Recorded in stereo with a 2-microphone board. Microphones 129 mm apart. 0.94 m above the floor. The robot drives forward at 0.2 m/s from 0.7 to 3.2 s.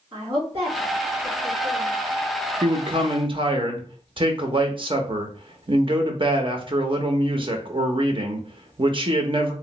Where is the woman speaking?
45° right (ahead or behind), 1.7 m; by 2.0 s 40° right (ahead or behind), 1.9 m.